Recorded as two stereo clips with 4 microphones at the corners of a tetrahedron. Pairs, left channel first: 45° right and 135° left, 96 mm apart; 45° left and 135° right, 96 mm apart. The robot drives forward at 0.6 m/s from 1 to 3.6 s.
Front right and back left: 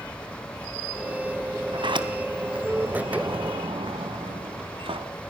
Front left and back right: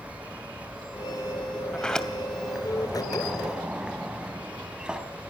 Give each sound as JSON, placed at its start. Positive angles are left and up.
{"t": 1.7, "sound": "a sliding door", "azimuth_deg": 125, "distance_m": 2.0}